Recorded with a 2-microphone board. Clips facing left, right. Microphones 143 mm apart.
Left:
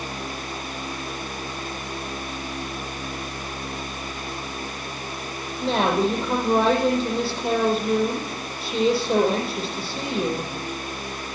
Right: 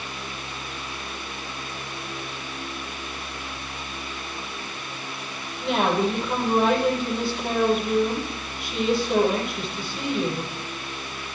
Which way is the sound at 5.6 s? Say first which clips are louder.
Left 1 dB; 35° left (ahead or behind).